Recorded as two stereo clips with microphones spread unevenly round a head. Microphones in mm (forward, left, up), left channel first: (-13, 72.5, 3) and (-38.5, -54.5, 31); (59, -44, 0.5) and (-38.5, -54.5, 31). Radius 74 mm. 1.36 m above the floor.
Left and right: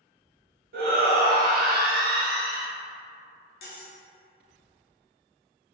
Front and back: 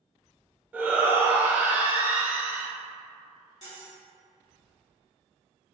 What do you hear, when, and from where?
0.7 s a shout: 100° right, 0.9 m
3.6 s cutlery clinking: 75° left, 0.7 m